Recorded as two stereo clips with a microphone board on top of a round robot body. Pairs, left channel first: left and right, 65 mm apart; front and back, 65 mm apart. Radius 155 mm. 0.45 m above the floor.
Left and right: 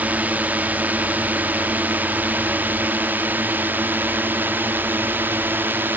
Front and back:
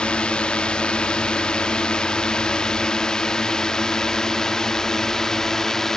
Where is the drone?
60° right; by 6.0 s 75° right.